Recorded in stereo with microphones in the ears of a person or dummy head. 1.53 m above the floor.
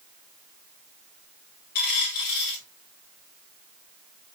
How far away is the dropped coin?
About 2 m.